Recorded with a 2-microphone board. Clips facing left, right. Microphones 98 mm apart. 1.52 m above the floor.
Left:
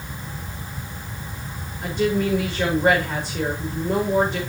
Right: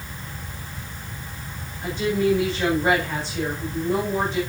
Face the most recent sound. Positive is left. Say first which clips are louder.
# even
turn(degrees=55)  # may be behind; listen again after turning